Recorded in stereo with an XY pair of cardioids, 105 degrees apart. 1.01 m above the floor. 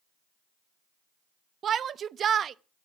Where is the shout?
55° right, 0.8 m.